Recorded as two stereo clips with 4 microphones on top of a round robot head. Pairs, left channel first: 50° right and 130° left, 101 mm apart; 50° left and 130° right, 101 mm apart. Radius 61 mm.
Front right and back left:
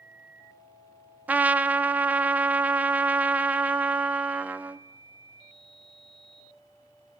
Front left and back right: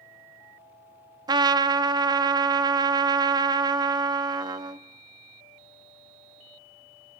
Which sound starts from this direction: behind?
A trumpet, at 1.3 s.